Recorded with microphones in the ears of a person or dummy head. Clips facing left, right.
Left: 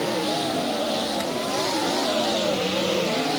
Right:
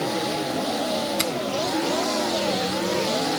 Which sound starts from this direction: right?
A finger snap, at 1.2 s.